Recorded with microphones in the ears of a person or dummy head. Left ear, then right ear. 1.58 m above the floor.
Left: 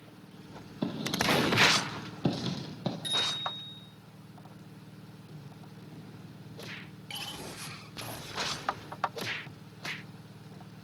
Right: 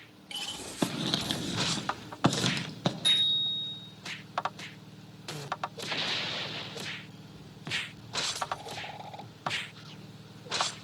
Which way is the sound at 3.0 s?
10° right (ahead or behind).